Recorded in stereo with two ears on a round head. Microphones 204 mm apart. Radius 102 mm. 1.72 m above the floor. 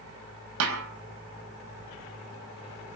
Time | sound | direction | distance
0.6 | a snare drum | 70° right (ahead or behind) | 4 m